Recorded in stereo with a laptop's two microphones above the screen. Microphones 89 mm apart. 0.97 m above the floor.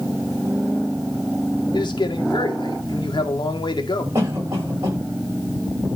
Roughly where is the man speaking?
Left.